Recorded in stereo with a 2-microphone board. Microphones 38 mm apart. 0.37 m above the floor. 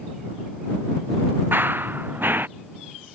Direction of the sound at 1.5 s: 60° right (ahead or behind).